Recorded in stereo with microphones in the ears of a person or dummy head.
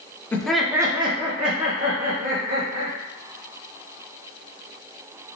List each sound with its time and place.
0.3 s laughter: 5° left (ahead or behind), 0.6 m; by 3.0 s 40° right (ahead or behind), 1.6 m